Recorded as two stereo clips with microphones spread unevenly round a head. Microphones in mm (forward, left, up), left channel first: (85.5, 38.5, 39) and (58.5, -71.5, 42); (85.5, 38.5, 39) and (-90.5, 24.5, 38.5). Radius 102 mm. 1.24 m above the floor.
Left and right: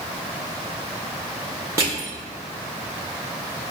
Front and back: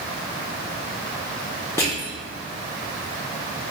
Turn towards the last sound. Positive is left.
turn(degrees=-65)